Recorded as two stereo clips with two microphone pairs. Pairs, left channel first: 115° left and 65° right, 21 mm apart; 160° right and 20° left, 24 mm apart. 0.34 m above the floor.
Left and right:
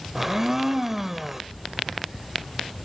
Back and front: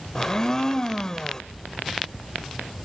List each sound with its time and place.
0.1 s a blender: 135° right, 1.0 m